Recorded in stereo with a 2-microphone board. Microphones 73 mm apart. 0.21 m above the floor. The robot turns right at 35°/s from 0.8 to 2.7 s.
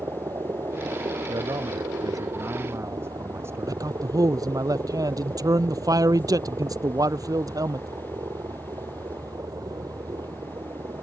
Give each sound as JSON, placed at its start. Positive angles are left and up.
{"t": 0.0, "sound": "a helicopter", "azimuth_deg": -125}
{"t": 1.3, "sound": "a man speaking", "azimuth_deg": -85}
{"t": 3.7, "sound": "a man speaking", "side_deg": -55}